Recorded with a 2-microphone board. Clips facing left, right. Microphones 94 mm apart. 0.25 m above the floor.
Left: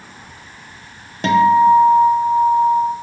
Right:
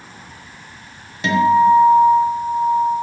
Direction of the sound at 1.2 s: 45° left (ahead or behind).